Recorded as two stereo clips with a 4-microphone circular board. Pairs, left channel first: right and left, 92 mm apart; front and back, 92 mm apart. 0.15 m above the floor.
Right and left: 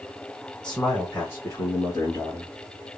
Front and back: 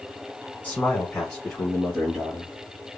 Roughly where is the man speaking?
Ahead right.